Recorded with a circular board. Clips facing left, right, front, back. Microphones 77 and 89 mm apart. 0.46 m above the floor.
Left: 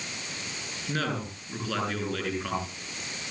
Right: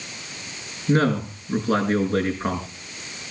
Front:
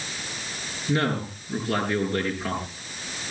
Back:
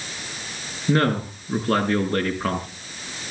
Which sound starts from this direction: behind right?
A man speaking, at 0.9 s.